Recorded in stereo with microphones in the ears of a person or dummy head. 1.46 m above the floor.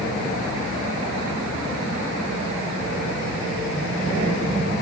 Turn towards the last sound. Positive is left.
No sound to turn to.